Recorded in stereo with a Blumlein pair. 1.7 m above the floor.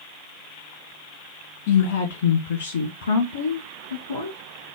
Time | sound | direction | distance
1.7 | a woman speaking | 55° left | 1.0 m